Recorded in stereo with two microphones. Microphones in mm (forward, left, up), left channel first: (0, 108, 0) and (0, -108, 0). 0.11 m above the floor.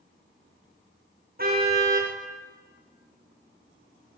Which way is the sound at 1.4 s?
45° right (ahead or behind).